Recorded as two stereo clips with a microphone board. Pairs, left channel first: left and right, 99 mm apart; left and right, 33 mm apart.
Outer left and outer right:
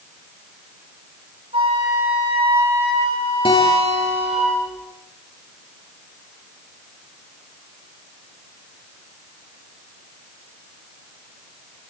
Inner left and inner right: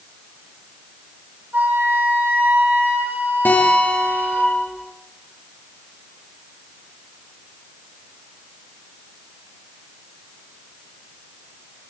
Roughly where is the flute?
Right.